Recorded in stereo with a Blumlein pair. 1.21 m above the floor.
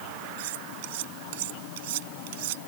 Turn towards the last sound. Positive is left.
turn(degrees=-50)